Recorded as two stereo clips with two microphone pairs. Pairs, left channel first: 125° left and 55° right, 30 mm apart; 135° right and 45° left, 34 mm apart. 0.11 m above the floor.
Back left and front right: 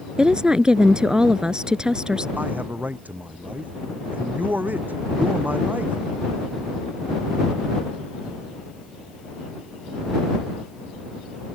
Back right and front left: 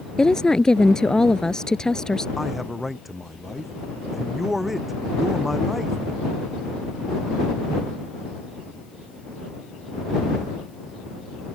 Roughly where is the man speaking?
Ahead right.